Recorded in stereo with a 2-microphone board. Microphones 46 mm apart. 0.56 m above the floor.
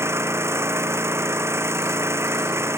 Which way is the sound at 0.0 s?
85° right.